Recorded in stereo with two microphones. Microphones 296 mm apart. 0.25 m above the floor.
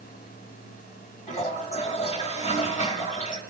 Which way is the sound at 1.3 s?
25° left (ahead or behind).